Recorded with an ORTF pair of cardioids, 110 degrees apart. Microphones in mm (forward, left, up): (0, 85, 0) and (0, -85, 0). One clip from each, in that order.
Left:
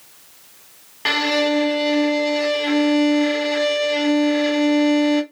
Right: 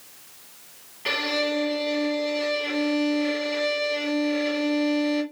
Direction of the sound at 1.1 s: 65° left.